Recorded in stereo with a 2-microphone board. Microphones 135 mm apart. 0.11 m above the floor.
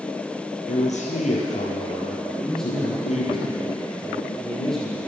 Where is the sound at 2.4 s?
5° left (ahead or behind), 4.5 m.